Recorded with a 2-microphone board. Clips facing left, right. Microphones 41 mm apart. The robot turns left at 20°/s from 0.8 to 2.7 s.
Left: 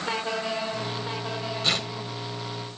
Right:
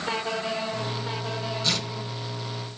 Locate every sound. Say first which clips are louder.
1.6 s tearing paper: left 3 dB; 40° left (ahead or behind), 2 m; by 1.9 s 45° left (ahead or behind), 2 m